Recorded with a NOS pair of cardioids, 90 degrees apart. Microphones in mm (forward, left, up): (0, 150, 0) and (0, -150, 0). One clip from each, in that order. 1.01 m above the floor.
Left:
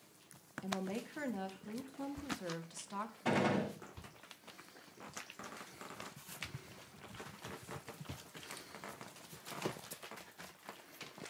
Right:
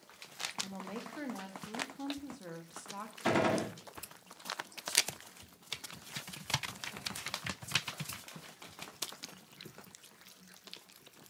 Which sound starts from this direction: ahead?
A woman speaking, at 0.6 s.